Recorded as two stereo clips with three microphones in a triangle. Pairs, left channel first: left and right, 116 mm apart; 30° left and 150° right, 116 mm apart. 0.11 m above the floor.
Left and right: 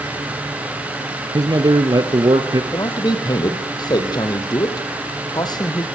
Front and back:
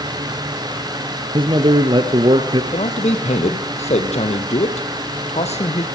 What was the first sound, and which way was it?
A man speaking, 125° right.